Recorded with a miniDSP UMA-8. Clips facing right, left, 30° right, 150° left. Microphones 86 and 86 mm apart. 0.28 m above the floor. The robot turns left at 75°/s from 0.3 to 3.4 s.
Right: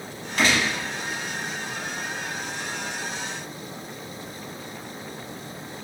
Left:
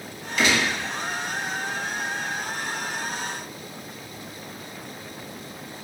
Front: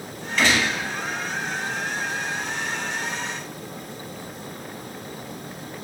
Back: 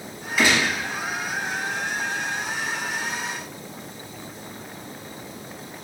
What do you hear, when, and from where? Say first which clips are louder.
0.4 s a gunshot: even, even; 125° right, 1.1 m; by 0.7 s 155° right, 1.1 m